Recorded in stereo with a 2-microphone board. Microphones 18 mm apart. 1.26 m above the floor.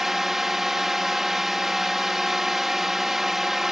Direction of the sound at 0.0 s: 20° right (ahead or behind).